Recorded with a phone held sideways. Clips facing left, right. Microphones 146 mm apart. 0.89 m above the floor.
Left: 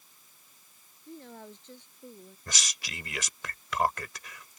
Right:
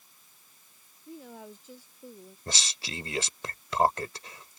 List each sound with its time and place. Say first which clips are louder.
1.1 s a woman speaking: right 1 dB; 5° right (ahead or behind)
2.5 s a man speaking: right 4 dB; 30° right (ahead or behind)